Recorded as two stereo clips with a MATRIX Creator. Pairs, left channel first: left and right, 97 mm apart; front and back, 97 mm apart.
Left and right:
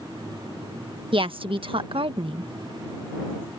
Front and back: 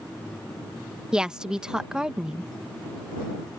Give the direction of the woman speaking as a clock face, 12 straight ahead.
3 o'clock.